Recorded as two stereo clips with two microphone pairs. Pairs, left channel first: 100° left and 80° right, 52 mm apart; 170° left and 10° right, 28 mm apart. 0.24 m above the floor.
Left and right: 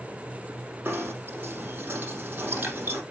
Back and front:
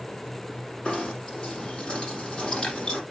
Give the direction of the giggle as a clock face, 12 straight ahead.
I don't hear a giggle.